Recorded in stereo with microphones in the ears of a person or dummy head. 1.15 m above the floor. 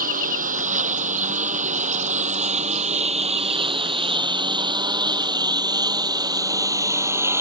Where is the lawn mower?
40° right (ahead or behind); by 7.4 s 5° right (ahead or behind).